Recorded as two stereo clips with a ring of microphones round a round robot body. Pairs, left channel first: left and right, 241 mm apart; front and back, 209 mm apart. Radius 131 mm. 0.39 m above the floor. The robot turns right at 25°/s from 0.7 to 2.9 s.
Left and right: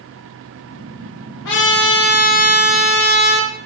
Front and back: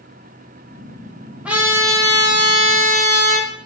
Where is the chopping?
No chopping in this recording.